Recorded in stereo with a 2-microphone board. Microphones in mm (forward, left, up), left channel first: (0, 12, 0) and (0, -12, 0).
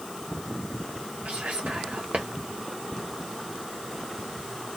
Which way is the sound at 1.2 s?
90° right.